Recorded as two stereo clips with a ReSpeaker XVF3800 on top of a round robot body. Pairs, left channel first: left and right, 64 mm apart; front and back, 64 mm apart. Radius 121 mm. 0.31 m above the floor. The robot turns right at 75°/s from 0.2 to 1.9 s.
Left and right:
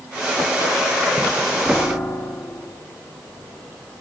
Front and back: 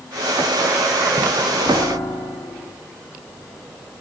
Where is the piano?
20° left, 3 m; by 2.7 s 35° left, 3 m.